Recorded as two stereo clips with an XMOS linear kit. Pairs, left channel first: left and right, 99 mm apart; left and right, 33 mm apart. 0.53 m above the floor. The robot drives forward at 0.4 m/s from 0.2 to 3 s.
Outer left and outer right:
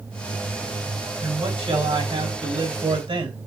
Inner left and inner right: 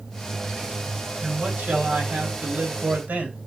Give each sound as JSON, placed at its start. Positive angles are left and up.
{"t": 1.2, "sound": "a man speaking", "side_deg": -70, "distance_m": 3.0}